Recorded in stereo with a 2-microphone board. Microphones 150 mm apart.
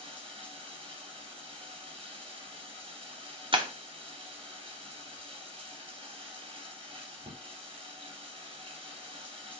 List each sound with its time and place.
0.0 s running water: 40° right (ahead or behind), 3.5 m
3.5 s breaking glass: 35° right (ahead or behind), 1.4 m